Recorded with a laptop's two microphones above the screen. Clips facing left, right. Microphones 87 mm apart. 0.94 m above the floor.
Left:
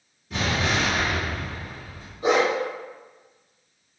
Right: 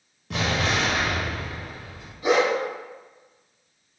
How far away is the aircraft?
No aircraft in this recording.